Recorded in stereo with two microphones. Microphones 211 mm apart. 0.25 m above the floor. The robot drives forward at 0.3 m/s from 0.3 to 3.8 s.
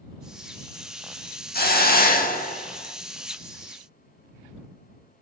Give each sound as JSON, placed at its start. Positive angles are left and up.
{"t": 1.5, "sound": "a hiss", "side_deg": 45, "distance_m": 0.7}